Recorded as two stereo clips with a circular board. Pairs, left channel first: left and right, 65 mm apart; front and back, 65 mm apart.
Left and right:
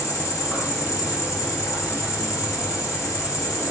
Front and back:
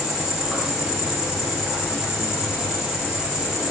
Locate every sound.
0.0 s an insect: 105° left, 2 m